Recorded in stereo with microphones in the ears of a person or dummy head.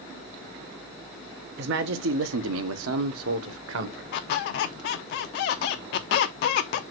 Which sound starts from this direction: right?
A man speaking, at 1.6 s.